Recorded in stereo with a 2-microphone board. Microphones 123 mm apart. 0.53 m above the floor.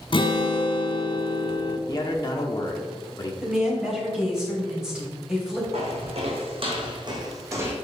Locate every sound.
0.1 s a guitar: 45° left (ahead or behind), 0.8 m
1.9 s a man speaking: 35° left (ahead or behind), 1.0 m
3.4 s a woman speaking: 5° right (ahead or behind), 3 m
5.7 s footsteps: 70° right (ahead or behind), 2 m; by 7.8 s 20° right (ahead or behind), 1.4 m